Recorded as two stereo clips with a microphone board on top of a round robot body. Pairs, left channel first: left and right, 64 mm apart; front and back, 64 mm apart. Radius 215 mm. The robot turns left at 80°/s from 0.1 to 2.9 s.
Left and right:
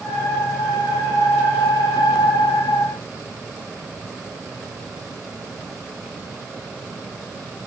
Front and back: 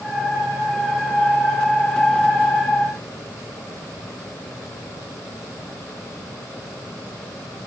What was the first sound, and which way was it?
Only background noise.